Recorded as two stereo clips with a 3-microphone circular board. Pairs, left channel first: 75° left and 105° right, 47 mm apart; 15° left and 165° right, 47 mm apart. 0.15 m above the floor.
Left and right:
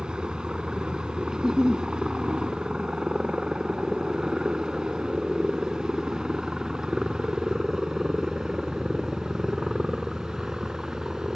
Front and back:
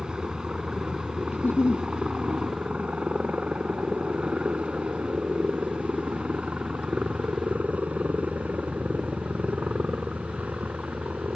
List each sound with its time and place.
0.0 s a helicopter: 135° right; by 11.3 s straight behind
1.3 s a giggle: 25° right